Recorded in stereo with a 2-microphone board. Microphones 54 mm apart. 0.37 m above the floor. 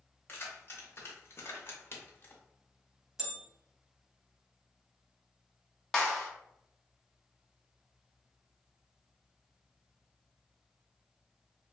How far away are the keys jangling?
About 1.1 m.